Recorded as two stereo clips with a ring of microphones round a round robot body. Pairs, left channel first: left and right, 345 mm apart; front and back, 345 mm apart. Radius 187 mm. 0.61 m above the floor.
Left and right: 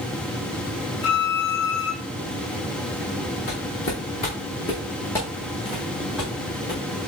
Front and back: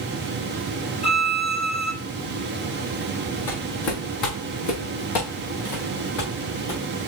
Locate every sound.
1.0 s a violin: 70° left, 1.1 m
3.5 s footsteps: 20° left, 3.5 m; by 6.8 s 5° right, 4.5 m